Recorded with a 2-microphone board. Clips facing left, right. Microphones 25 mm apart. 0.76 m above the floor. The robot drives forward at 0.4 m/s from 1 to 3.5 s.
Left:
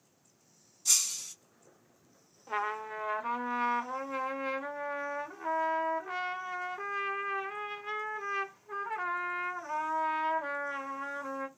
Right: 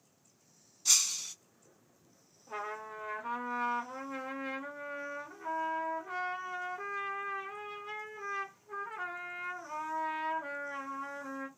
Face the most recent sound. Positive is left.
turn(degrees=25)  # may be behind; listen again after turning